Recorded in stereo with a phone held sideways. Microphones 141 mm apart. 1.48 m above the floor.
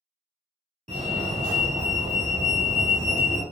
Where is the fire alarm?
50° right (ahead or behind), 0.9 m.